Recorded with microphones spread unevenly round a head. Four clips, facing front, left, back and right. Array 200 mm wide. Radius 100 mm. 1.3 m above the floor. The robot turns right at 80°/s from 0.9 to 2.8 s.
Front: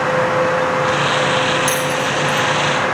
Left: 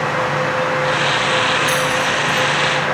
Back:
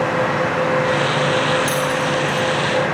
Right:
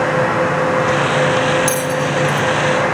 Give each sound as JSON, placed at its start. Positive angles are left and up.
{"t": 1.7, "sound": "a bell", "azimuth_deg": -85, "distance_m": 0.6}